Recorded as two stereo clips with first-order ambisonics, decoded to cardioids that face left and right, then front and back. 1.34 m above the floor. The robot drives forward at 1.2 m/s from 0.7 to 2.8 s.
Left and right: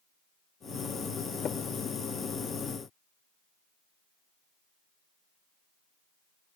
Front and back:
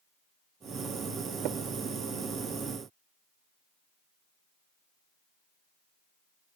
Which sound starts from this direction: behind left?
Tapping, at 1.4 s.